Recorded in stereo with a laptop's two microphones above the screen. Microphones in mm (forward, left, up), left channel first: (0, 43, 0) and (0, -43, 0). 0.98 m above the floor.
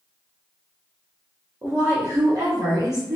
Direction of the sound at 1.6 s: 25° right (ahead or behind).